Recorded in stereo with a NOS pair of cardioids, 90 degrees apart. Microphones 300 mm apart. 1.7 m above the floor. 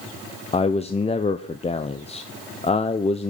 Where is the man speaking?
20° left, 1.0 m.